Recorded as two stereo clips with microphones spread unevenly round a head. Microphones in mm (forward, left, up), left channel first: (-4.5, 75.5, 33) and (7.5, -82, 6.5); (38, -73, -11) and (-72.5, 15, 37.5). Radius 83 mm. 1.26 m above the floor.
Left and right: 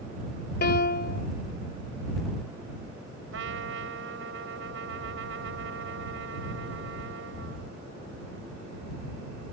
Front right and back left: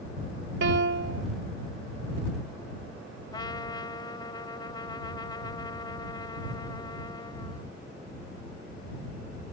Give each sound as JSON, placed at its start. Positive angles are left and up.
{"t": 0.6, "sound": "a piano", "azimuth_deg": 130}
{"t": 3.3, "sound": "a trumpet", "azimuth_deg": -105}